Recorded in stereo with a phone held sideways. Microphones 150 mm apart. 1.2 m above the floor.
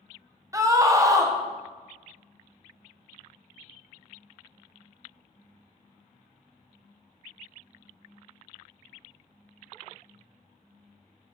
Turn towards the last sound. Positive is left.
turn(degrees=-20)  # may be behind; listen again after turning